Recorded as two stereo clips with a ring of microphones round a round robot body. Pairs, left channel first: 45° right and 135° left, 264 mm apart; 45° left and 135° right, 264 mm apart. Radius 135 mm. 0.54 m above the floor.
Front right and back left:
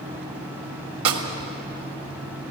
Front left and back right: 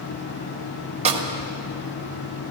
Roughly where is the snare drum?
Behind.